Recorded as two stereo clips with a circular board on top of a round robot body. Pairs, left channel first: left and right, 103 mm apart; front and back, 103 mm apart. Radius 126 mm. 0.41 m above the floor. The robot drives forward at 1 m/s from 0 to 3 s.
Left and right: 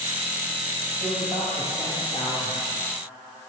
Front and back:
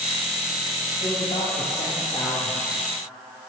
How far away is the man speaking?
About 2.5 m.